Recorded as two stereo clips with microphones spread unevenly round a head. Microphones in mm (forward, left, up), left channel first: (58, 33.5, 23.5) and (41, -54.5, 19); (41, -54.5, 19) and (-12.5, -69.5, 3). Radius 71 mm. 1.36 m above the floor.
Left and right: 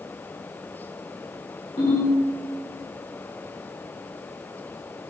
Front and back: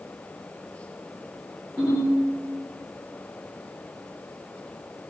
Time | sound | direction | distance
1.8 | a ringtone | 115° left | 1.6 m